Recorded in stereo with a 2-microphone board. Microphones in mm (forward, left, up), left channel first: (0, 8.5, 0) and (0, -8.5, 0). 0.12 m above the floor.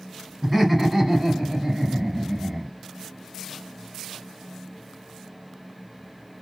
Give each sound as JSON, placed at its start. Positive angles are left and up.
{"t": 0.4, "sound": "laughter", "side_deg": 10, "distance_m": 1.4}